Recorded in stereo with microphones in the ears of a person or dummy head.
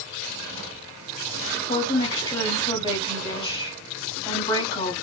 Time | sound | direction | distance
1.7 | a woman speaking | 25° left (ahead or behind) | 3.5 m